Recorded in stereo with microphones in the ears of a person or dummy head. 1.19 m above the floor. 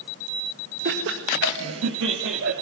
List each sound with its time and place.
0.8 s laughter: 55° right (ahead or behind), 1.5 m; by 2.5 s 70° right (ahead or behind), 3 m